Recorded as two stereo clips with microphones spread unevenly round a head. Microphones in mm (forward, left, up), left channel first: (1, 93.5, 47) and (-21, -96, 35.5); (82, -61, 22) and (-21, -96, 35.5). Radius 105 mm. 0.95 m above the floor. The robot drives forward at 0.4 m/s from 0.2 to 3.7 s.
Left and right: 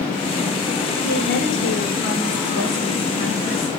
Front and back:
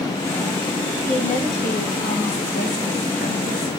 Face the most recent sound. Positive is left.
turn(degrees=55)